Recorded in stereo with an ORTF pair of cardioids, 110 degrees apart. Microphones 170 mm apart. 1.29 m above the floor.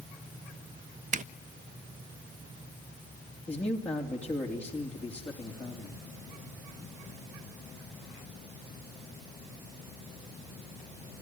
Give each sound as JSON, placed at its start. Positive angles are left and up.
{"t": 1.1, "sound": "a zipper", "azimuth_deg": -50, "distance_m": 0.5}
{"t": 3.5, "sound": "a man speaking", "azimuth_deg": 10, "distance_m": 2.5}